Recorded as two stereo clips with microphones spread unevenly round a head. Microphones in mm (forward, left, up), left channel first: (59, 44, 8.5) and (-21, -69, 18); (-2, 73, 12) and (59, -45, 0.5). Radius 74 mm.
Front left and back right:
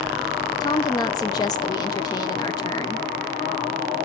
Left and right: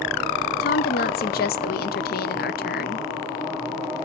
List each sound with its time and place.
0.6 s a woman speaking: 120° left, 0.5 m